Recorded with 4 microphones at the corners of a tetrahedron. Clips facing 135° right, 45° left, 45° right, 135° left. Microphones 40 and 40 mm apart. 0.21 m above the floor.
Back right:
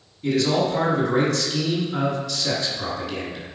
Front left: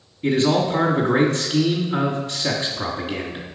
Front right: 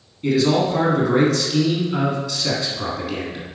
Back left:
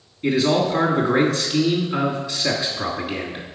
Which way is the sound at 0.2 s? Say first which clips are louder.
Front left 2 dB, front right 1 dB; 70° left.